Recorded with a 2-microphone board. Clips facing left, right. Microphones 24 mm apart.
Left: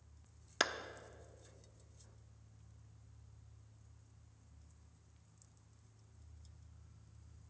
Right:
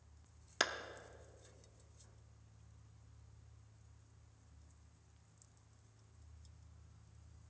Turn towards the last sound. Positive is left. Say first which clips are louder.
# left 1 dB
turn(degrees=5)  # may be behind; listen again after turning